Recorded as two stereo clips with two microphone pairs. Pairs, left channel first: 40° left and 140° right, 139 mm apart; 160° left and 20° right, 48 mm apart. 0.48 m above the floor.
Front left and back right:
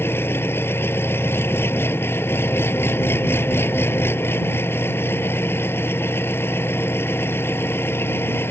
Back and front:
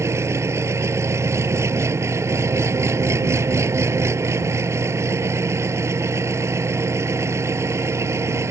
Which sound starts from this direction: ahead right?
An engine running, at 0.0 s.